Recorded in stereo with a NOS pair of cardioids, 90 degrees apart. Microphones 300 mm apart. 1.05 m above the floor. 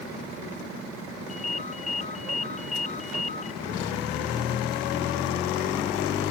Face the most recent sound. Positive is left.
turn(degrees=25)